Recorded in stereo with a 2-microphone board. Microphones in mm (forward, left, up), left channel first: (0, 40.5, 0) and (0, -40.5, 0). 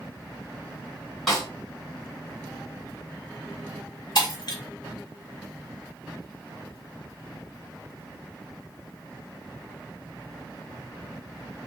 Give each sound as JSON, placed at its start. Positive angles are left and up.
{"t": 1.3, "sound": "a snare drum", "side_deg": 5, "distance_m": 2.0}
{"t": 4.2, "sound": "breaking glass", "side_deg": 55, "distance_m": 1.5}